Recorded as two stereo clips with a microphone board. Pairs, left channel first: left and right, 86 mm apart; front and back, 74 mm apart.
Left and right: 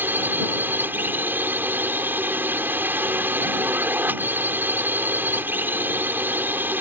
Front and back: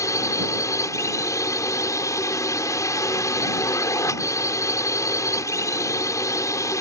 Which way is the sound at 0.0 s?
30° right.